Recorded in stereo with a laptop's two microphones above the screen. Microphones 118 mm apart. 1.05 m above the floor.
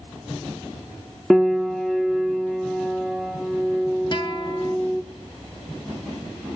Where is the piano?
Centre (ahead or behind), 1.4 m.